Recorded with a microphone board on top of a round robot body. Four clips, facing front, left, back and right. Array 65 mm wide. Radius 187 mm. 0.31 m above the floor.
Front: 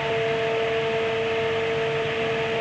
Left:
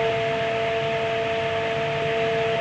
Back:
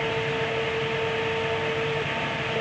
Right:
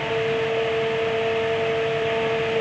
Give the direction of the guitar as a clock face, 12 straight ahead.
I don't hear a guitar.